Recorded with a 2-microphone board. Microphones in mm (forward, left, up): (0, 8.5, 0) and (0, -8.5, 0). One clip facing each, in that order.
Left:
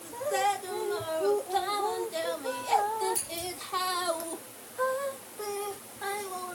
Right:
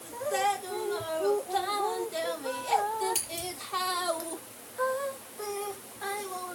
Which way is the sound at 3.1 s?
80° right.